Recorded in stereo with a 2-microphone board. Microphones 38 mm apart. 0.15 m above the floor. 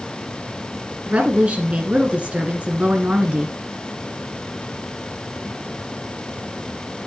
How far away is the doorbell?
I don't hear a doorbell.